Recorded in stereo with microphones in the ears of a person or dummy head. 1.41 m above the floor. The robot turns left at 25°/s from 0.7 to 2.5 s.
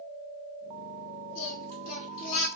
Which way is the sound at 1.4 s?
55° left (ahead or behind).